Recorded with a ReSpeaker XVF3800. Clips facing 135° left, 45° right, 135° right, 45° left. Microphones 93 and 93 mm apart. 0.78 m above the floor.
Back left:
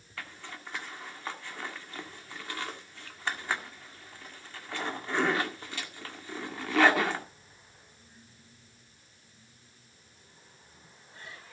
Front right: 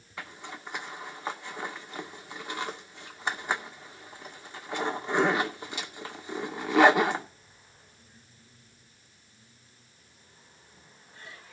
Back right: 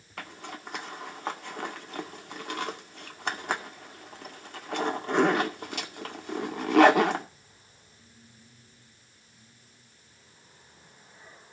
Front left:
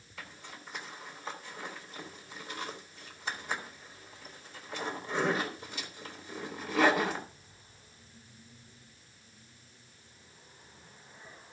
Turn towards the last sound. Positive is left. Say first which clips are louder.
# front right 2 dB, back right 7 dB
turn(degrees=-115)